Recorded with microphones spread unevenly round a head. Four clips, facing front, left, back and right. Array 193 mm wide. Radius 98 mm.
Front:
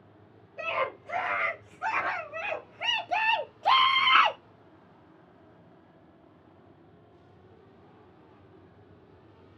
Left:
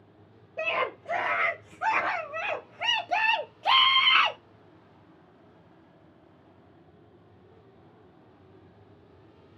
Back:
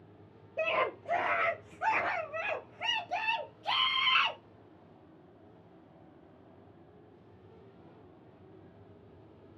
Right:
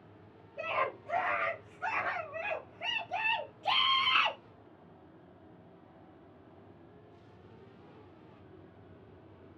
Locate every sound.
0.6 s a scream: 150° left, 1.6 m; by 4.4 s 10° left, 0.9 m